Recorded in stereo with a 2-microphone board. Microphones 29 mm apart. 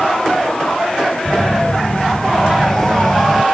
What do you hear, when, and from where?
1.2 s a phone buzzing: 10° left (ahead or behind)